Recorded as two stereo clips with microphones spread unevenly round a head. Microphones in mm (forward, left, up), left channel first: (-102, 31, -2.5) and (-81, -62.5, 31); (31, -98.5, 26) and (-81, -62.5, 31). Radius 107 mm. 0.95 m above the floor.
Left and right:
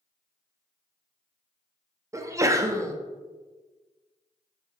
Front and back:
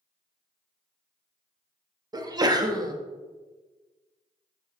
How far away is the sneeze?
About 1.1 m.